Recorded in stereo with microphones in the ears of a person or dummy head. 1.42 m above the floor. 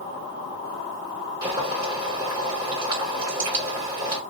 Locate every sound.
1.4 s boiling: 10° right (ahead or behind), 1.7 m